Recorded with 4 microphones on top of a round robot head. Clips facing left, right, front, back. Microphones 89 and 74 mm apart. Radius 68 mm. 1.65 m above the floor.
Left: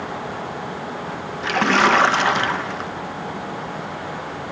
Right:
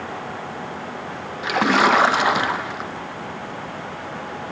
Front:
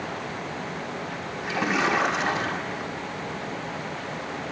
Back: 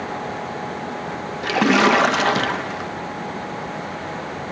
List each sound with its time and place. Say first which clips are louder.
1.4 s a splash: even, back 9 dB; 170° right, 0.5 m